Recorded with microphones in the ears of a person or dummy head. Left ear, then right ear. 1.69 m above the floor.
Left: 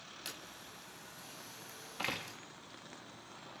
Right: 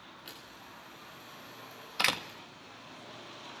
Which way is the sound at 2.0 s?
70° right (ahead or behind).